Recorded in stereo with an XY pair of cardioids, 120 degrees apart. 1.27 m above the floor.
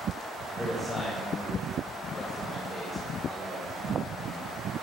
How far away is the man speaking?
About 4.5 m.